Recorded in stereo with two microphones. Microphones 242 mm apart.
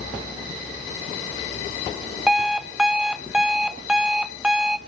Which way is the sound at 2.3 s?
5° right (ahead or behind).